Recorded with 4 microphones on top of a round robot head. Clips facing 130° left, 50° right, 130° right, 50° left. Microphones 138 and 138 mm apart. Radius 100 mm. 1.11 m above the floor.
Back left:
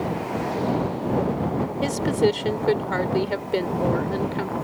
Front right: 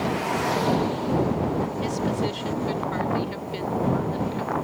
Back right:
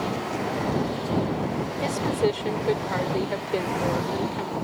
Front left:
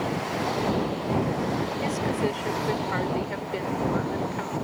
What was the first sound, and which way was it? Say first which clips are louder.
A woman speaking: back left 5 dB, back right 5 dB; 165° left.